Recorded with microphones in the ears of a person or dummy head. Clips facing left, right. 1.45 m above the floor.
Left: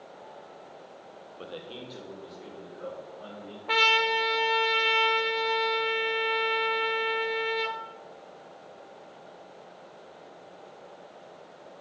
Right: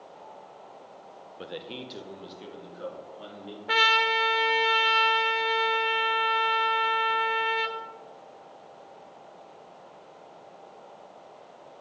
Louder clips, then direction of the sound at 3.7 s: Even; 10° right (ahead or behind).